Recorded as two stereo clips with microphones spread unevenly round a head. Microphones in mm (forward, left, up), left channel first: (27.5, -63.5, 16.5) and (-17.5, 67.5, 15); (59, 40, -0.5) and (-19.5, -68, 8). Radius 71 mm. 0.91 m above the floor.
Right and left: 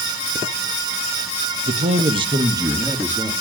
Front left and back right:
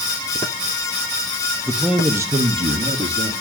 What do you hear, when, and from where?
1.7 s a man speaking: 140° left, 1.3 m; by 3.3 s 170° right, 1.9 m